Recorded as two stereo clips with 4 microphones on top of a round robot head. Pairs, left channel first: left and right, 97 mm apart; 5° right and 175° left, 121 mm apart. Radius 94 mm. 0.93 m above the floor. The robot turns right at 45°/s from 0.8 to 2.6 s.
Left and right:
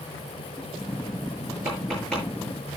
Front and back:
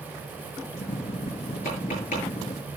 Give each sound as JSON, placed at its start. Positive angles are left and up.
{"t": 1.6, "sound": "tapping", "azimuth_deg": -20, "distance_m": 8.0}